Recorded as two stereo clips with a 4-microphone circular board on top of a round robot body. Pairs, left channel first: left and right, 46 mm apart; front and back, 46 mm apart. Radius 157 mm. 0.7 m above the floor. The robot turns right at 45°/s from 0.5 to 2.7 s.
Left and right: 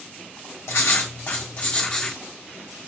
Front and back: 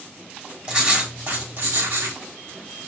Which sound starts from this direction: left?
Writing, at 0.7 s.